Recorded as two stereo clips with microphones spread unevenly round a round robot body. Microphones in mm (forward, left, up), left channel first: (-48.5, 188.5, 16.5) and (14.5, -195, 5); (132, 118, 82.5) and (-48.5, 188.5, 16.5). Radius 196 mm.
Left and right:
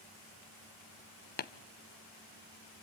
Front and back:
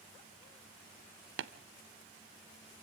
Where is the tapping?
155° left, 0.6 m.